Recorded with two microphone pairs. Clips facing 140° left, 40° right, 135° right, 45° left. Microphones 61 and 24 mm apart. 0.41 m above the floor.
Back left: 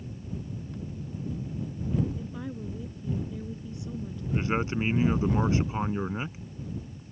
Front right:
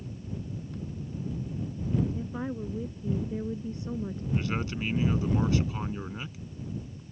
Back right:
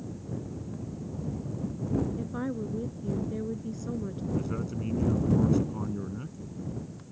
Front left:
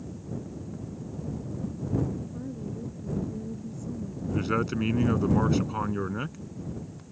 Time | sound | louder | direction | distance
2.2 | a woman speaking | front right 3 dB, back right 4 dB | 110° right | ?
4.3 | a man speaking | back left 5 dB, front left 7 dB | 75° left | ?